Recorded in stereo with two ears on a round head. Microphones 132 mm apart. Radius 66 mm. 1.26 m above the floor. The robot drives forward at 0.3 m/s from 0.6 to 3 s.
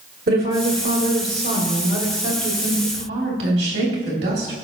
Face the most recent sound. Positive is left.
turn(degrees=-90)